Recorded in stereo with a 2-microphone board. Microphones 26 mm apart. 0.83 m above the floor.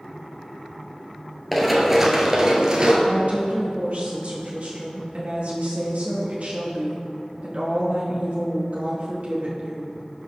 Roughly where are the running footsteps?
Centre.